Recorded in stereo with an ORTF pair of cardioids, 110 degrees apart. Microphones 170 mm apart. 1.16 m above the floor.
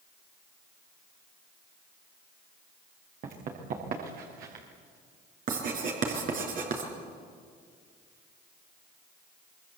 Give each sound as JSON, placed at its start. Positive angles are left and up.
{"t": 3.2, "sound": "running footsteps", "azimuth_deg": -55, "distance_m": 5.5}
{"t": 5.5, "sound": "writing", "azimuth_deg": -55, "distance_m": 5.0}